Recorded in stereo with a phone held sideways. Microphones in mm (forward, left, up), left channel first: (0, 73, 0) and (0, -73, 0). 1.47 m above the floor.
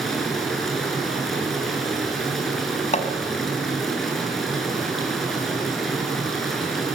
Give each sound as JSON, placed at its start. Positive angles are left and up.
{"t": 0.0, "sound": "running water", "side_deg": 0, "distance_m": 7.0}
{"t": 2.9, "sound": "hammering", "side_deg": 50, "distance_m": 4.0}